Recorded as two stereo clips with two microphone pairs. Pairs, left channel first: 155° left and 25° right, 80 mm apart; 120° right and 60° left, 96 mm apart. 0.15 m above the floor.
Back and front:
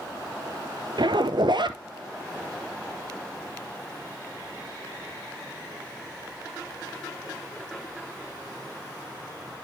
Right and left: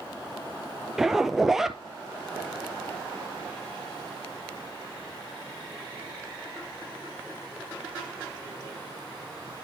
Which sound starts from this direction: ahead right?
A zipper, at 1.0 s.